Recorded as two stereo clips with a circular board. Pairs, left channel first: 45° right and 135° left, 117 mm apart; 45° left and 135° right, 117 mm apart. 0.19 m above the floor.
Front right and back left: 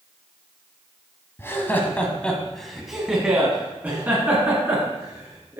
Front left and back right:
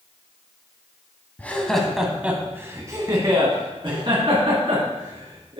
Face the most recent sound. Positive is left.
turn(degrees=-160)